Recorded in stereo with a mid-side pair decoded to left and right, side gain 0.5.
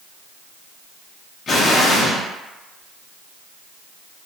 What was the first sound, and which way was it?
An explosion, 45° left.